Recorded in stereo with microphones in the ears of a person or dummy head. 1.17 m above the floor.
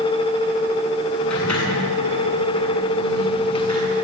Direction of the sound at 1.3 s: 5° left (ahead or behind).